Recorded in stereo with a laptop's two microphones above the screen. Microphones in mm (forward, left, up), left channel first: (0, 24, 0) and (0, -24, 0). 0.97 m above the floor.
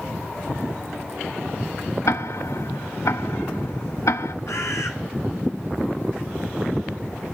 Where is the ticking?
75° left (ahead or behind), 0.5 m.